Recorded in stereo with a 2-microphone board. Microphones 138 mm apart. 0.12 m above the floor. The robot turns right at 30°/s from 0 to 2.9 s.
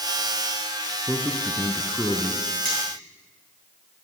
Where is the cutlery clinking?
80° right, 5.5 m.